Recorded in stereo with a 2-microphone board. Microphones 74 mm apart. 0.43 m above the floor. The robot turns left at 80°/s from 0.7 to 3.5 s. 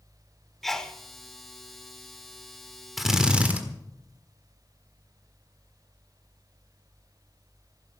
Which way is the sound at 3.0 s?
Centre (ahead or behind).